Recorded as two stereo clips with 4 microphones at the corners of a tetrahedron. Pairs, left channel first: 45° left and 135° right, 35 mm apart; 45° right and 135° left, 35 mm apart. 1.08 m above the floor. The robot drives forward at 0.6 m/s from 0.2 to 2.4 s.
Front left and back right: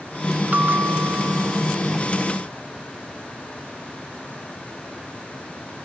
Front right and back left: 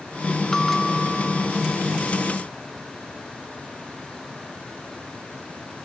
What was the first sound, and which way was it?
A bell, 115° right.